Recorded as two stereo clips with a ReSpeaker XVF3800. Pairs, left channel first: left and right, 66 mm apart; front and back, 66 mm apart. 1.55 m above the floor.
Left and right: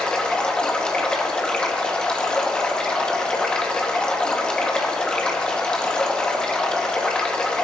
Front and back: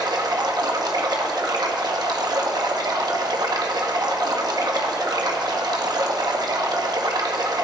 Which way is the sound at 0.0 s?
165° left.